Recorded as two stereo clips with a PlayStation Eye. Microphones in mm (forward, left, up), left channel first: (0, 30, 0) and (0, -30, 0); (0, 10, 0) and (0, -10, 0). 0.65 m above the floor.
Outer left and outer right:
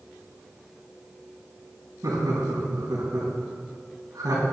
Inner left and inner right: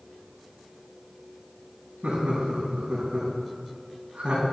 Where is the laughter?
75° right (ahead or behind), 4 m.